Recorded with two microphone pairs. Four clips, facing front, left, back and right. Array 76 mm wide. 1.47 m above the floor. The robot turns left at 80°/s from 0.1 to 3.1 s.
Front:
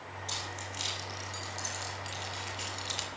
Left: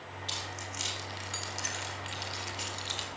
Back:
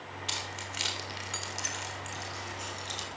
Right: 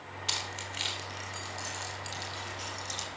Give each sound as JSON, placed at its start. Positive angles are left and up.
{"t": 0.3, "sound": "keys jangling", "azimuth_deg": -120, "distance_m": 3.5}